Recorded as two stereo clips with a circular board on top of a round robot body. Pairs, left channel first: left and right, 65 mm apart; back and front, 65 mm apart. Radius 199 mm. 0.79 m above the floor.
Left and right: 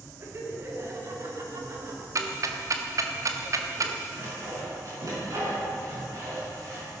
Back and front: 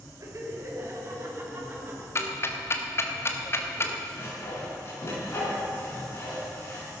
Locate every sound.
0.2 s laughter: 40° right, 3 m; by 2.0 s 60° right, 3.5 m
2.1 s ticking: 130° right, 1.3 m
4.1 s sawing: 130° right, 6 m